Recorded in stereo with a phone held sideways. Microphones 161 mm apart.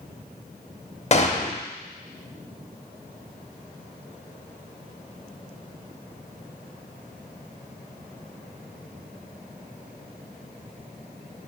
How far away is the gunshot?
About 0.8 m.